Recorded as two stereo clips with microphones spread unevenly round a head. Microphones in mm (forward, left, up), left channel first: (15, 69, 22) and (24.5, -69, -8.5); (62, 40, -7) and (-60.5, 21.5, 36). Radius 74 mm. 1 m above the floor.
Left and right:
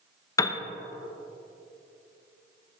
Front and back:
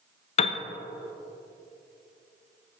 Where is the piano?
25° left, 0.6 m.